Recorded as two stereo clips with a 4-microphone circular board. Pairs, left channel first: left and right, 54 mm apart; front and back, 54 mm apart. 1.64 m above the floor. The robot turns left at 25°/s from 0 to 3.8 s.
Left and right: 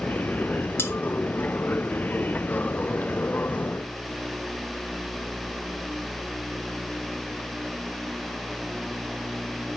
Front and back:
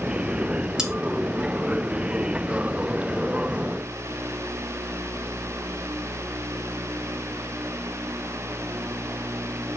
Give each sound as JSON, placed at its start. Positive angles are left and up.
{"t": 0.8, "sound": "cutlery clinking", "azimuth_deg": 110, "distance_m": 1.3}